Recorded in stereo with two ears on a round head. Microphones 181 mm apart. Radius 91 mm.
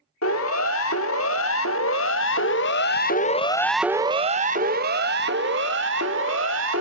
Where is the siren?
80° left, 3 m; by 6.8 s 65° right (ahead or behind), 2.5 m.